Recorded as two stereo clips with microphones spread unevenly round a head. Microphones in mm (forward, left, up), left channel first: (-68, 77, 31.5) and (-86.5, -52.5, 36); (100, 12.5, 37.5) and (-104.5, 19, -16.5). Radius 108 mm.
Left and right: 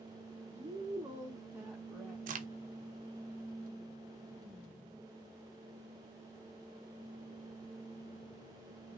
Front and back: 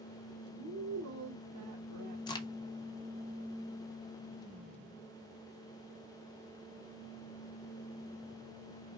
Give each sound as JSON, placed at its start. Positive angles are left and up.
{"t": 0.5, "sound": "a woman speaking", "azimuth_deg": -140, "distance_m": 0.9}
{"t": 2.3, "sound": "a crack", "azimuth_deg": -80, "distance_m": 0.6}